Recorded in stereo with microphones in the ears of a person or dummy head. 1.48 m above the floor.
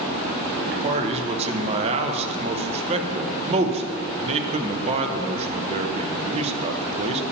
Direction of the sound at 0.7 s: 35° right (ahead or behind).